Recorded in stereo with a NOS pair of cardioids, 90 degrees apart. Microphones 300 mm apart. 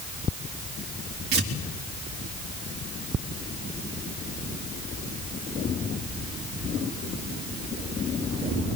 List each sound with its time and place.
1.3 s tearing paper: 45° right, 4.5 m